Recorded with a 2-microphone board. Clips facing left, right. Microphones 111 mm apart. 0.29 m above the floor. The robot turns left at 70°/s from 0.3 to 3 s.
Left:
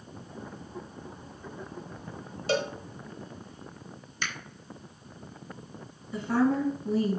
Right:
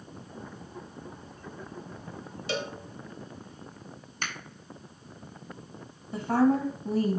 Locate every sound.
2.5 s a cowbell: 40° left (ahead or behind), 0.7 m; by 2.8 s 30° left (ahead or behind), 0.7 m
4.2 s a finger snap: 50° right (ahead or behind), 1.4 m
6.1 s a woman speaking: 50° right (ahead or behind), 1.4 m